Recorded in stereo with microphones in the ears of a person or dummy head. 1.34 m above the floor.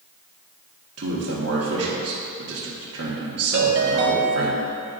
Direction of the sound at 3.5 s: 55° right (ahead or behind).